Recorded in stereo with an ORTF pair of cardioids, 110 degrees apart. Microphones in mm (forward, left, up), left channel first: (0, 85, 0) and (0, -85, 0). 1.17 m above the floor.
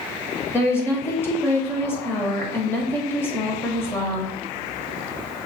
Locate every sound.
0.5 s a woman speaking: 15° left, 1.6 m